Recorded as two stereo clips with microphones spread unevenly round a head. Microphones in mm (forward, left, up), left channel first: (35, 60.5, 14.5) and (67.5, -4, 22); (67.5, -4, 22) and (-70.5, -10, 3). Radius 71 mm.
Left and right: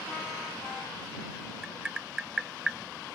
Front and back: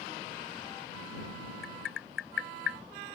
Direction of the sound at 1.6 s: 15° left.